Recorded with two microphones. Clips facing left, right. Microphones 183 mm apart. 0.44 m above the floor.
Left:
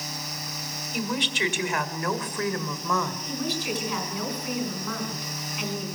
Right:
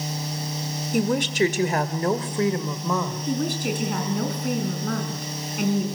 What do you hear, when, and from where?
0.9 s a woman speaking: 50° right (ahead or behind), 2 m; by 3.2 s 15° right (ahead or behind), 2.5 m
3.3 s a woman speaking: 50° right (ahead or behind), 5.5 m